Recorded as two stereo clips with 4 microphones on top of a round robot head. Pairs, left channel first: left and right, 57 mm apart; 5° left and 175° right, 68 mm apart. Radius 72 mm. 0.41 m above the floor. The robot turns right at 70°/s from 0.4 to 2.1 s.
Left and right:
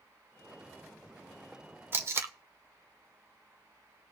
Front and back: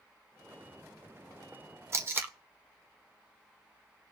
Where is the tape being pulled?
135° right, 1.0 m; by 2.3 s 125° right, 1.0 m.